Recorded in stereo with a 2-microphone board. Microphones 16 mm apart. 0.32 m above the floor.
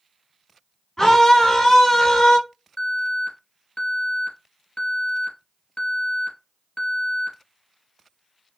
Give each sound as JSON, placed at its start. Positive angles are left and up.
{"t": 1.0, "sound": "a scream", "side_deg": 30, "distance_m": 2.5}
{"t": 2.8, "sound": "an alarm", "side_deg": 55, "distance_m": 3.0}